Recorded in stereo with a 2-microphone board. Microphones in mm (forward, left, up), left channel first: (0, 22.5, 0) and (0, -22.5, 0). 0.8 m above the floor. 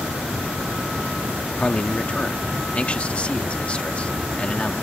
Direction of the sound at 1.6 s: 30° left (ahead or behind).